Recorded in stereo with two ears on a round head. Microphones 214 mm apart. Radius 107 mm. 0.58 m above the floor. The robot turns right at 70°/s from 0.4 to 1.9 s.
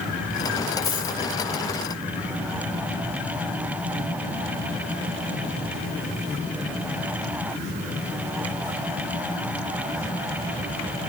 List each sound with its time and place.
0.8 s a dropped coin: 25° left (ahead or behind), 5 m; by 1.2 s 45° left (ahead or behind), 5 m